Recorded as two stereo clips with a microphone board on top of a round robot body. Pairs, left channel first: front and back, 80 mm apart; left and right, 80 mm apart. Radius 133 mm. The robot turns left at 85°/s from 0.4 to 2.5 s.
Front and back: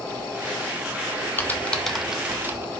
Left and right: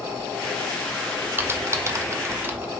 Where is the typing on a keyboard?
40° right, 1.1 m; by 2.7 s 135° right, 1.1 m.